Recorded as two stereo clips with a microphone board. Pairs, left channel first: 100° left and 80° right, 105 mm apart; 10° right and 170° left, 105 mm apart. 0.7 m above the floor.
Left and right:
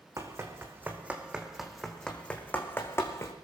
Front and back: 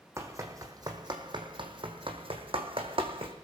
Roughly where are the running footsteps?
Behind right.